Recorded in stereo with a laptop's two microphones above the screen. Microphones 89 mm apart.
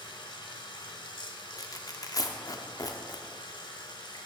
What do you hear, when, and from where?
0.0 s running water: 55° left (ahead or behind), 0.9 m
1.6 s tearing paper: 40° left (ahead or behind), 0.5 m